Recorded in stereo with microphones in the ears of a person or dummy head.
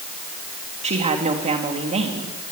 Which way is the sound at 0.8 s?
30° right (ahead or behind).